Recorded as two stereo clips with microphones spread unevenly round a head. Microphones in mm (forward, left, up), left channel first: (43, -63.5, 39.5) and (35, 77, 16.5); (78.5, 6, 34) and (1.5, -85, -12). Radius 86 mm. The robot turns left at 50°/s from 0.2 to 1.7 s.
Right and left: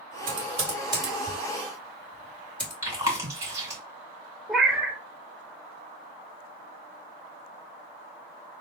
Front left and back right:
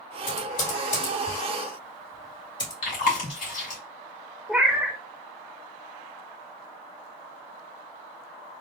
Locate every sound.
0.3 s typing on a keyboard: 65° left, 2 m; by 2.7 s 5° right, 2 m
2.8 s chewing: 30° left, 2 m
4.5 s a cat meowing: 10° right, 0.7 m